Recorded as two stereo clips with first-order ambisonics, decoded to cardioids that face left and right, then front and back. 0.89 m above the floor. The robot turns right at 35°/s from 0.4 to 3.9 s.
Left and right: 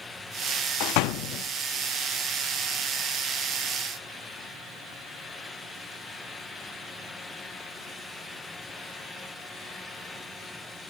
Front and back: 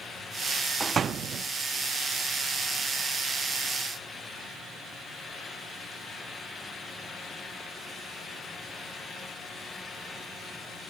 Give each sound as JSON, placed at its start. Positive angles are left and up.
{"t": 0.8, "sound": "a door slam", "azimuth_deg": 105, "distance_m": 0.7}